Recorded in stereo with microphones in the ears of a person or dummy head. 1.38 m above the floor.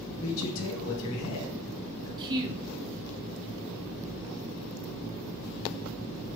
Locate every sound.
0.2 s a man speaking: 75° left (ahead or behind), 1.8 m
2.2 s a woman speaking: 25° right (ahead or behind), 1.1 m